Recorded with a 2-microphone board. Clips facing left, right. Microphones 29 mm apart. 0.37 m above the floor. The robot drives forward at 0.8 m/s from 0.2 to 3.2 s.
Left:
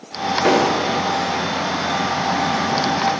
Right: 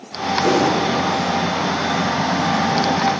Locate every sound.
0.5 s an explosion: 35° left (ahead or behind), 0.8 m; by 1.1 s 25° left (ahead or behind), 1.0 m